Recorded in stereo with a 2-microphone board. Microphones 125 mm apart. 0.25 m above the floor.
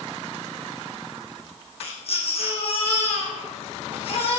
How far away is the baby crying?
About 6.5 m.